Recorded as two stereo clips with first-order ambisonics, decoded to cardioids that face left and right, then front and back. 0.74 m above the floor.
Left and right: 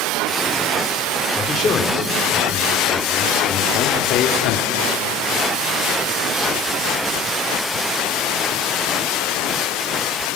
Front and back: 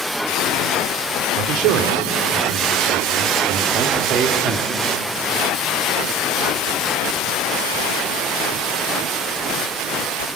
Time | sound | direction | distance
1.4 | a man speaking | 165° left | 2.5 m